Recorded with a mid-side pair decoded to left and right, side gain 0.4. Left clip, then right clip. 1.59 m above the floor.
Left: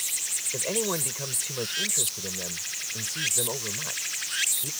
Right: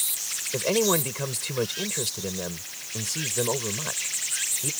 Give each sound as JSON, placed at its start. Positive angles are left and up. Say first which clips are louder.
{"t": 0.5, "sound": "a man speaking", "louder": "right 7 dB", "azimuth_deg": -40}